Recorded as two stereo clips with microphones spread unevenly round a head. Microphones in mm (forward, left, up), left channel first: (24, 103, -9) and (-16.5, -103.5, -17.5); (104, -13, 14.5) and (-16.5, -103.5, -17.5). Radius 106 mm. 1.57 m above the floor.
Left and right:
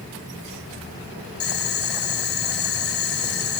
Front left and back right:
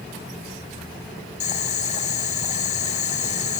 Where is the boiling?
55° left, 2.0 m.